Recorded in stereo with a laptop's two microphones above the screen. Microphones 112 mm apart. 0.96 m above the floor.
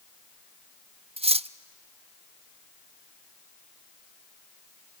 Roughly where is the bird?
No bird in this recording.